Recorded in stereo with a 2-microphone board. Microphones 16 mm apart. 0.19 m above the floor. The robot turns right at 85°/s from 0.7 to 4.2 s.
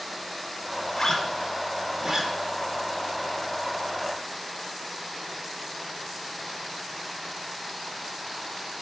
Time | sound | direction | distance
0.9 | a zipper | 60° left (ahead or behind) | 1.0 m